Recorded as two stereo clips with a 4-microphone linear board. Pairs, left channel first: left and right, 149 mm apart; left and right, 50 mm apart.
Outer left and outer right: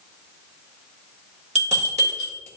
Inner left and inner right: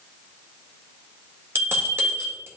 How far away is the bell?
About 1.8 m.